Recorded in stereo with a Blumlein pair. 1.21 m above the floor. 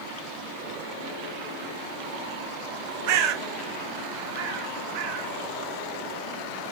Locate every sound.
3.1 s a bird: 45° right, 1.1 m